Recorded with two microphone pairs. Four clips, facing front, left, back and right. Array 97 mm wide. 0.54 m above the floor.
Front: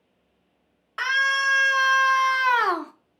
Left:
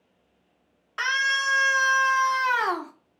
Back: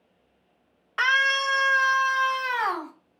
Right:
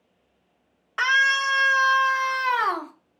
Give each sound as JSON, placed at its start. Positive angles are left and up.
{"t": 1.0, "sound": "a scream", "azimuth_deg": -115, "distance_m": 0.9}